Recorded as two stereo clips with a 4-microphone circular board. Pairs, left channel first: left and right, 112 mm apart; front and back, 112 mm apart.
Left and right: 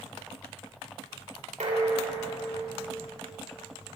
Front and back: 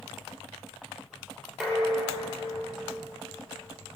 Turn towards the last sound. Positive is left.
turn(degrees=-95)